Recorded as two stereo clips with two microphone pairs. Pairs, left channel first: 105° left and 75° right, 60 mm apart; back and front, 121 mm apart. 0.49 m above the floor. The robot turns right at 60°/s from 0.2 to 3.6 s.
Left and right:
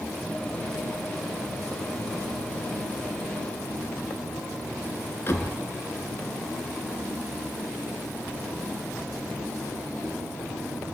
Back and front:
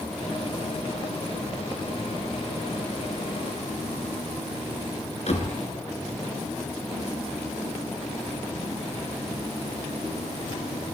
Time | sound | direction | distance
5.3 | a door slam | 155° left | 5 m